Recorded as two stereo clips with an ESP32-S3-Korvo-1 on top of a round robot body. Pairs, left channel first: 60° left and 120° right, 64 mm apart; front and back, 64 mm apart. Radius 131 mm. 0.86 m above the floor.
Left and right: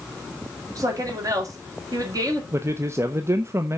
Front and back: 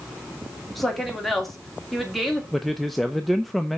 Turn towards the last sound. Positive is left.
turn(degrees=-90)